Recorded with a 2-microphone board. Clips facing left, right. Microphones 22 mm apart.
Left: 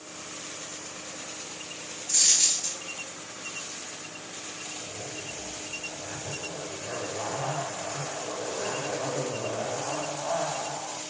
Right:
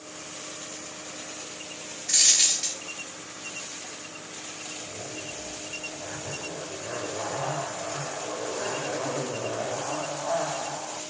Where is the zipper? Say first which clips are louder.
Right 1 dB; 10° right (ahead or behind), 3 m.